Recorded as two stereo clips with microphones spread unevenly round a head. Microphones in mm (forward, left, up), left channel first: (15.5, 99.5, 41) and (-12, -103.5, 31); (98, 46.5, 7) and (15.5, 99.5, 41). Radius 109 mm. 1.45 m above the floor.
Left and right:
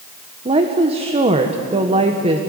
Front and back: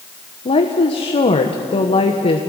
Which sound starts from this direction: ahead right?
A woman speaking, at 0.5 s.